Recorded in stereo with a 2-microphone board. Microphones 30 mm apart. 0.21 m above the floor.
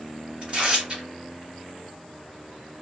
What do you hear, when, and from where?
0.4 s tearing paper: 35° right (ahead or behind), 1.8 m